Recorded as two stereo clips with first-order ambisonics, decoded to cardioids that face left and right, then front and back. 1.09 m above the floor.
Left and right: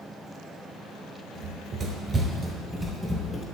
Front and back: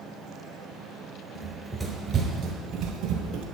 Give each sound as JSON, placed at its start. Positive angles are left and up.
{"t": 1.4, "sound": "running footsteps", "azimuth_deg": -55, "distance_m": 1.2}